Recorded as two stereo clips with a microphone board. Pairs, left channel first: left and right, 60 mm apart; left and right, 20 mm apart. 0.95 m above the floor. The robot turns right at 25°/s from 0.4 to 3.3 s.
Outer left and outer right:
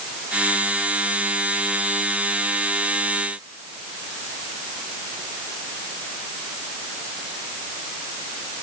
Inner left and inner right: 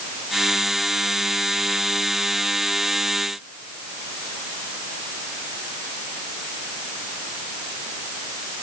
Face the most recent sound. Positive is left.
No sound to turn to.